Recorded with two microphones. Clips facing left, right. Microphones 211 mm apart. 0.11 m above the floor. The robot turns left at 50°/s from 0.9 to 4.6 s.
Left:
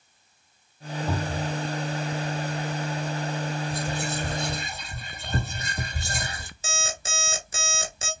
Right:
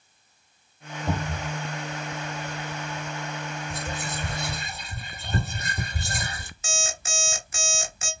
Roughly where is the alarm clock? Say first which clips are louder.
Right 1 dB; left.